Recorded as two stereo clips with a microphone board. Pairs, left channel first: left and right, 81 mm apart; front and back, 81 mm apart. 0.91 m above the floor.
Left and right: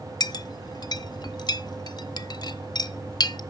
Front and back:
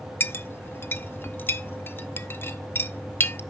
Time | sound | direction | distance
0.2 | a clink | 65° left | 0.5 m